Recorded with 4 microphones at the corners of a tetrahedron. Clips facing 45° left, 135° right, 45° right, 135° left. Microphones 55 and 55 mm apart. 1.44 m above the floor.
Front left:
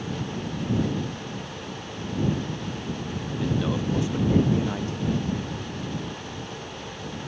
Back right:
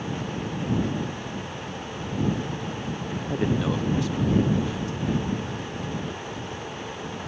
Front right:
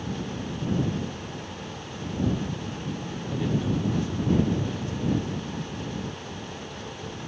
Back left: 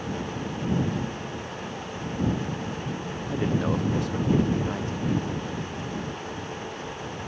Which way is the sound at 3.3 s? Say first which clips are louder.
Back right 2 dB, back left 1 dB; 160° right.